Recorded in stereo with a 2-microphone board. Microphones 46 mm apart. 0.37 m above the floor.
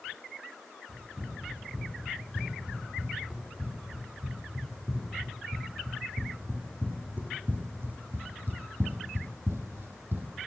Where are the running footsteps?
20° right (ahead or behind), 4.5 m; by 10.3 s 45° right (ahead or behind), 0.9 m.